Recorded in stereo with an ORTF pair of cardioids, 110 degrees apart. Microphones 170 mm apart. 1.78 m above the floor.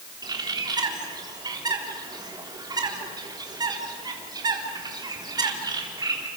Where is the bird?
25° right, 4 m.